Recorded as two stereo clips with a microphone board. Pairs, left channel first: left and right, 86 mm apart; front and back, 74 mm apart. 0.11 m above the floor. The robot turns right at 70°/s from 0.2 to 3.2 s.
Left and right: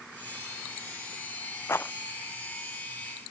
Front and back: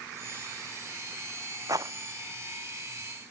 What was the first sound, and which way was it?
A rattle, 145° left.